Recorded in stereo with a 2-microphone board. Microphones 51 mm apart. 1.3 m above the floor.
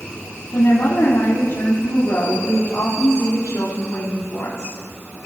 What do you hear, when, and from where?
0.5 s a woman speaking: 80° left, 3.5 m